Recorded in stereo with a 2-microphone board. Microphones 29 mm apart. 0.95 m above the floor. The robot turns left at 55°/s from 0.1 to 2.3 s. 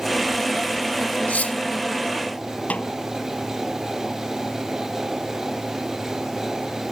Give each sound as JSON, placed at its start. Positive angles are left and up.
{"t": 1.3, "sound": "cutlery clinking", "side_deg": 60}
{"t": 2.7, "sound": "a snare drum", "side_deg": 55}